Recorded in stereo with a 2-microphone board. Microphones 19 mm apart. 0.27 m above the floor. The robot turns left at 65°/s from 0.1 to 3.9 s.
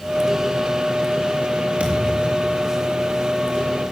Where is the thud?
105° right, 3 m; by 2.6 s 155° right, 3 m.